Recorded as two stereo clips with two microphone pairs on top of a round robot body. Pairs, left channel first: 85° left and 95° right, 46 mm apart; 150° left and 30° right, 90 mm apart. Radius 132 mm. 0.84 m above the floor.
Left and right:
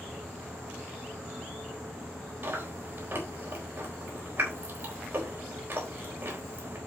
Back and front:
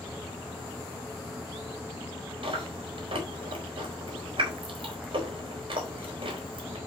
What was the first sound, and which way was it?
Chewing, 60° right.